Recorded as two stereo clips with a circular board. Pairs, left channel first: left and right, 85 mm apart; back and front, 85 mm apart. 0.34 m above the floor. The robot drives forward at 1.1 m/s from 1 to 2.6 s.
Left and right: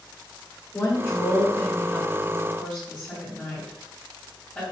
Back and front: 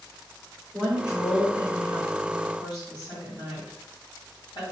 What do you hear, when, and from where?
0.7 s a woman speaking: 60° left, 1.2 m; by 4.6 s 165° left, 1.9 m